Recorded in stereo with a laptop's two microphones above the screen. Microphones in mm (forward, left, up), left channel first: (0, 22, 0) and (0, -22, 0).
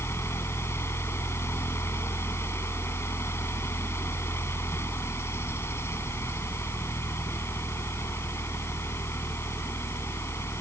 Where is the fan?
70° left (ahead or behind).